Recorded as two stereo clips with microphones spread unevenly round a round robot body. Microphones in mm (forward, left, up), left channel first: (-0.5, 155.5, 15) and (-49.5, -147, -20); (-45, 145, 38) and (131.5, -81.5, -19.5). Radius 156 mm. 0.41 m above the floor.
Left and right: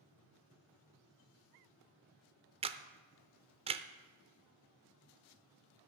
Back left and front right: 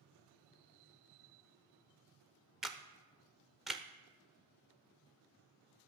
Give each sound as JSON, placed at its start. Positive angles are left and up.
{"t": 2.6, "sound": "a camera shutter", "azimuth_deg": -115, "distance_m": 0.5}